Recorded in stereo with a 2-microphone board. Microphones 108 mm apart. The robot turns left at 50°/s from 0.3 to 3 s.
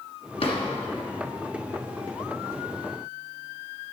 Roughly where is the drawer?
Left.